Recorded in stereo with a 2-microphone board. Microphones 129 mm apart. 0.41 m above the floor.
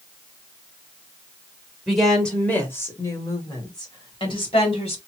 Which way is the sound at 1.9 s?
Centre (ahead or behind).